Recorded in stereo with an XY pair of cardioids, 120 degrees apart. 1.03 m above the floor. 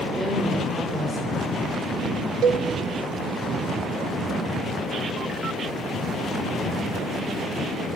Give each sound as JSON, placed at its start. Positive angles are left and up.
{"t": 0.1, "sound": "a woman speaking", "azimuth_deg": -15, "distance_m": 4.5}
{"t": 2.4, "sound": "a cowbell", "azimuth_deg": -60, "distance_m": 0.7}